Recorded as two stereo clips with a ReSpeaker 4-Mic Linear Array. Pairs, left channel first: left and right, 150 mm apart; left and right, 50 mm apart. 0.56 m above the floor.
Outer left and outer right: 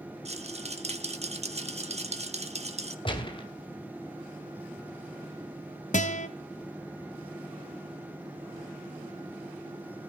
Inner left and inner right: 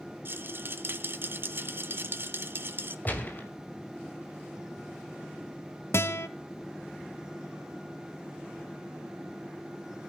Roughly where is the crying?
I don't hear crying.